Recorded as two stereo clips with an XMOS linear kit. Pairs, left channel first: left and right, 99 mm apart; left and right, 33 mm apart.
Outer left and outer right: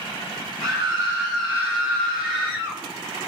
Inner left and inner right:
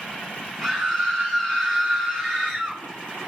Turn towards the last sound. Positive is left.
turn(degrees=0)  # may be behind; listen again after turning